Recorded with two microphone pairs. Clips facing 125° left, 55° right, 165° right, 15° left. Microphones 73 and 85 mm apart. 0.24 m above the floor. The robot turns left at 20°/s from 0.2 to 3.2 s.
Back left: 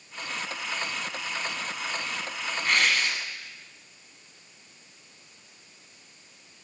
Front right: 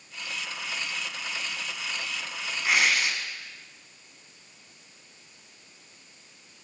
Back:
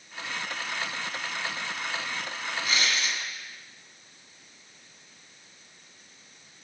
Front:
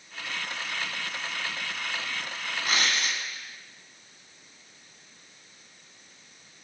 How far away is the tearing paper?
About 0.9 m.